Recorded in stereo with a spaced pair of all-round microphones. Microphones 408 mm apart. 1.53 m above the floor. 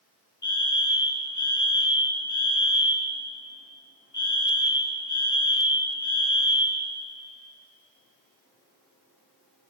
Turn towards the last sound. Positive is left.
turn(degrees=45)  # may be behind; listen again after turning